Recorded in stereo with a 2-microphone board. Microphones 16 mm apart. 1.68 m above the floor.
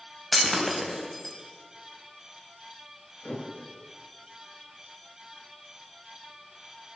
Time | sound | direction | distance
0.3 | breaking glass | 5° left (ahead or behind) | 5 m
3.2 | a thud | 75° left (ahead or behind) | 10 m